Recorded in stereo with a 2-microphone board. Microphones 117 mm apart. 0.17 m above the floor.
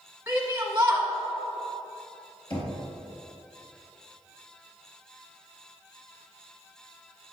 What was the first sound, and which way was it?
A shout, 20° right (ahead or behind).